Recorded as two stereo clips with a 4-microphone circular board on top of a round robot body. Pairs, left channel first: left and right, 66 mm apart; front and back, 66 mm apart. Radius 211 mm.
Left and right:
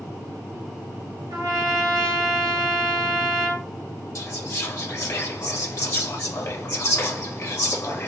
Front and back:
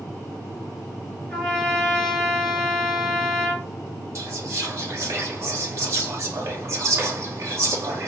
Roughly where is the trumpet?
Right.